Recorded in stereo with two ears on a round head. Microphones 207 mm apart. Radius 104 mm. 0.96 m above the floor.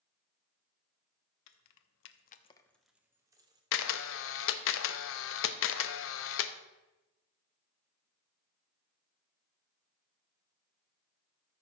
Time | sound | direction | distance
1.5 | keys jangling | 75° left (ahead or behind) | 1.0 m
3.7 | a camera shutter | 60° left (ahead or behind) | 0.7 m